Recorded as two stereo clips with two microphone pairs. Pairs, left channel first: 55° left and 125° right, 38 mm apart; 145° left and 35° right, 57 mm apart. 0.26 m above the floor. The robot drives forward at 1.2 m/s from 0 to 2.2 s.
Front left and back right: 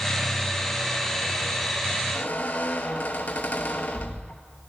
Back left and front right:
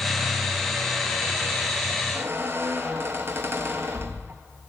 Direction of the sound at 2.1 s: 10° left.